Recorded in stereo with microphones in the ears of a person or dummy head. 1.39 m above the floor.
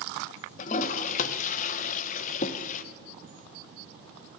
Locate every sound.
0.6 s a toilet flushing: 45° left (ahead or behind), 0.7 m